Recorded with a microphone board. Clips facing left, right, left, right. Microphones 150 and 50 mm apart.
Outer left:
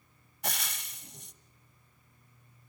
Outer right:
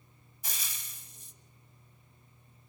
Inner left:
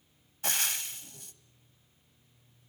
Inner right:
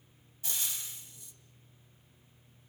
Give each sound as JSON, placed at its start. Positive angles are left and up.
{"t": 0.4, "sound": "frying", "side_deg": 70, "distance_m": 1.3}